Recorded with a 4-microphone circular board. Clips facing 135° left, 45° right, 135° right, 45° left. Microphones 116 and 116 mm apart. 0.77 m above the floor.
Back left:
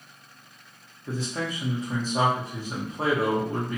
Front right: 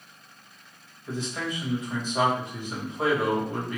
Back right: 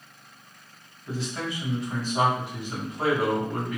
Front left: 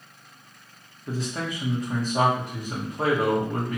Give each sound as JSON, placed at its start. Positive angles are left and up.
{"t": 1.1, "sound": "a man speaking", "azimuth_deg": 85, "distance_m": 1.2}